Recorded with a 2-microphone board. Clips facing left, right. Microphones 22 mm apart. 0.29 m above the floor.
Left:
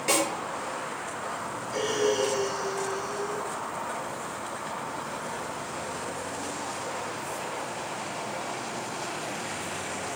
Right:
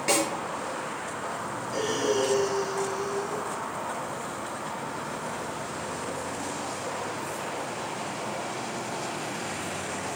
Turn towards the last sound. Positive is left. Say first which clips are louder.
# left 1 dB
turn(degrees=10)  # may be behind; listen again after turning